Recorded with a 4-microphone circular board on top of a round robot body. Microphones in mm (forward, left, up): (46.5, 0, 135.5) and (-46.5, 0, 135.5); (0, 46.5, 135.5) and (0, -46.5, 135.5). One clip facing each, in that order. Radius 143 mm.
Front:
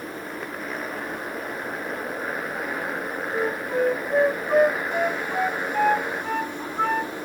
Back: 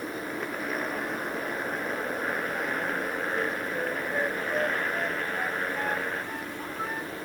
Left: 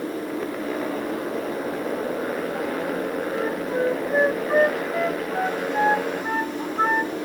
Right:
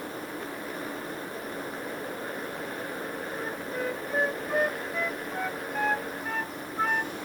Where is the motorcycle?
90° left; by 7.3 s 80° left.